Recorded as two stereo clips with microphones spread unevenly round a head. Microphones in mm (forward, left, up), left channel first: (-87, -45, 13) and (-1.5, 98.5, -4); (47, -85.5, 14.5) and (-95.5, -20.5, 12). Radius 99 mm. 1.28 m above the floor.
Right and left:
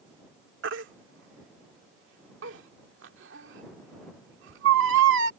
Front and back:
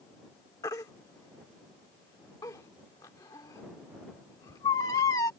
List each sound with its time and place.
0.6 s a baby crying: 50° left